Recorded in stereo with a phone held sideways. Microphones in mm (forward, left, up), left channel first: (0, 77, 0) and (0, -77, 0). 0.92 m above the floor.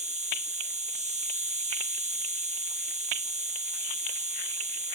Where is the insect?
50° right (ahead or behind).